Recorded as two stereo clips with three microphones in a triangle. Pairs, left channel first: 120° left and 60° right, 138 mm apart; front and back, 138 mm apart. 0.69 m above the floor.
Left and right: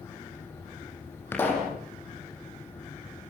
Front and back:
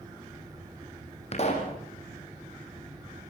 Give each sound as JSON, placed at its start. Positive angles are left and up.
{"t": 1.3, "sound": "a pop", "azimuth_deg": 45, "distance_m": 7.0}